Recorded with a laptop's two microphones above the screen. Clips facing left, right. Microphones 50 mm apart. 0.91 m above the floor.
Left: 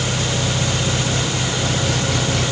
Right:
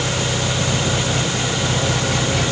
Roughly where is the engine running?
Centre.